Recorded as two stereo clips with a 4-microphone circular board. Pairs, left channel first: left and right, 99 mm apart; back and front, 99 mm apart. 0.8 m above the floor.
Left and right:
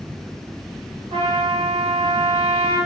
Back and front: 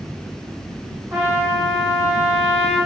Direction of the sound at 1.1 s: 75° right.